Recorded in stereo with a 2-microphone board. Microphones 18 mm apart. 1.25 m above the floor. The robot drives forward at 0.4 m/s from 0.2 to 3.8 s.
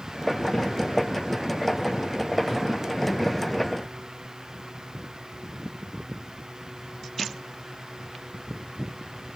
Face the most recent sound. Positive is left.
No sound to turn to.